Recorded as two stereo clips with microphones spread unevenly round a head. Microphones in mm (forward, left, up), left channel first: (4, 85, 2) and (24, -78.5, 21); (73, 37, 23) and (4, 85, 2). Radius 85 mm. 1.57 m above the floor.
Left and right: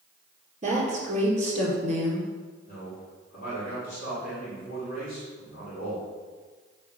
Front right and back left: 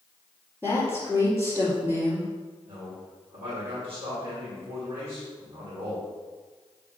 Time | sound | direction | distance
0.6 | a woman speaking | 135° right | 3.5 m
2.7 | a man speaking | 145° left | 3.5 m